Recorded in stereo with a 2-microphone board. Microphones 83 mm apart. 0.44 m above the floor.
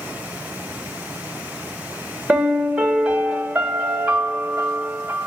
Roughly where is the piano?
Centre.